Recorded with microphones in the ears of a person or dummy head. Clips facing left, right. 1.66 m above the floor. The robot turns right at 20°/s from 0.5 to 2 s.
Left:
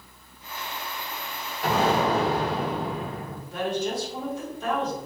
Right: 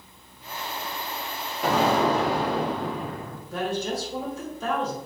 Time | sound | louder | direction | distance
1.6 | an explosion | right 1 dB | 75° right (ahead or behind) | 0.9 m
3.5 | a woman speaking | even | 80° right | 1.7 m